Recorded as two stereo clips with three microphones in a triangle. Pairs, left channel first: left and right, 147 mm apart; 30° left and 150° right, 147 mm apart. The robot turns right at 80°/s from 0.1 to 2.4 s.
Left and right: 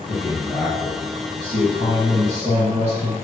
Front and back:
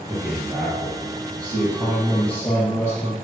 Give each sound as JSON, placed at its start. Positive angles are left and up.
{"t": 0.1, "sound": "a man speaking", "azimuth_deg": 135, "distance_m": 1.5}